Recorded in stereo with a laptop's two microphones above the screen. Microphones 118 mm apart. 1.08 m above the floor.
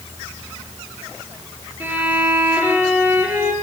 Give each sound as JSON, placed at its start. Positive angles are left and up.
{"t": 1.8, "sound": "a violin", "side_deg": -15, "distance_m": 5.0}